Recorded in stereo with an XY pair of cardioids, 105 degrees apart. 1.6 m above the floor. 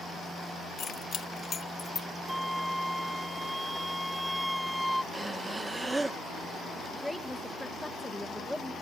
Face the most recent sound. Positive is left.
turn(degrees=0)